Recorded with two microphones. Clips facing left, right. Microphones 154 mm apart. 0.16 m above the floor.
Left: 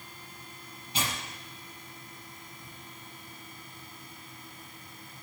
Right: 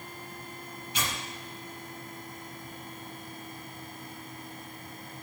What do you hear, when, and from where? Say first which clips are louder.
0.9 s tearing paper: left 1 dB; 30° left (ahead or behind), 4.5 m